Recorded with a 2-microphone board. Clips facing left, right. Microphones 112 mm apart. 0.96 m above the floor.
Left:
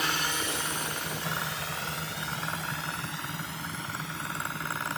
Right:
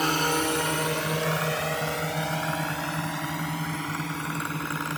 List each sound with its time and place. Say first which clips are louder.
0.0 s a drone: right 7 dB; 40° right (ahead or behind); by 5.0 s 70° right (ahead or behind)